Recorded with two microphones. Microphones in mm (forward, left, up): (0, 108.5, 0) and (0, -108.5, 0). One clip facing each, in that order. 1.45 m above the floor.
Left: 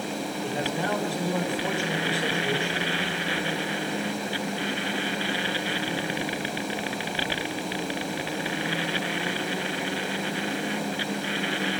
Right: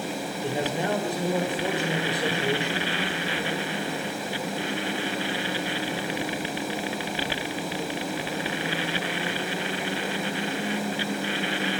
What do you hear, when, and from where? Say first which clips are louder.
0.4 s a man speaking: right 3 dB; 20° right (ahead or behind), 6 m